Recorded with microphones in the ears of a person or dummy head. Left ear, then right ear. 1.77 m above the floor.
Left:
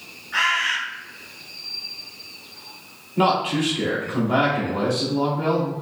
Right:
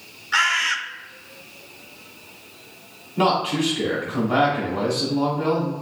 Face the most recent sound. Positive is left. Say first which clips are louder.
# even
turn(degrees=5)  # may be behind; listen again after turning